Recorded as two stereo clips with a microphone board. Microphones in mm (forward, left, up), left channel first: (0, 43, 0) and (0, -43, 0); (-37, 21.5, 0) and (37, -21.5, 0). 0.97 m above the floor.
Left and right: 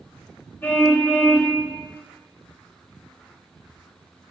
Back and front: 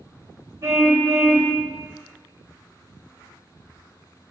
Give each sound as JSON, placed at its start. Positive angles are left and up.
{"t": 0.6, "sound": "a car horn", "azimuth_deg": 25, "distance_m": 2.5}